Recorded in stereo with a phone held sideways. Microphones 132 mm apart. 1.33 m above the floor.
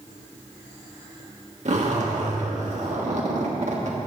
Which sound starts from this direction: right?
A zipper, at 1.6 s.